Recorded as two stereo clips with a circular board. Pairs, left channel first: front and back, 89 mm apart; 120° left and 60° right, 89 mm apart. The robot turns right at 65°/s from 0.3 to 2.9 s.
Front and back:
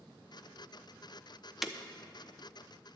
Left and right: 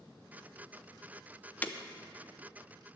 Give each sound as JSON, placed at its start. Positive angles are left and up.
{"t": 1.6, "sound": "breaking glass", "azimuth_deg": 100, "distance_m": 0.7}